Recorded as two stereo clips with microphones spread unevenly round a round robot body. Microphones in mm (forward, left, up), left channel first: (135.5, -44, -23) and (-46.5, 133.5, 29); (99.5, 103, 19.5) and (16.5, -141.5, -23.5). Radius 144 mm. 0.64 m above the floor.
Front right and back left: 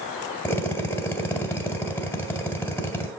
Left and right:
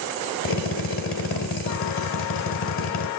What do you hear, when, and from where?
0.5 s a drill: 35° left, 2.5 m